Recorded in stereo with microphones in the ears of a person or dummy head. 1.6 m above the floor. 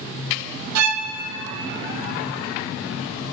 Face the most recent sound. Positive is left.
turn(degrees=-85)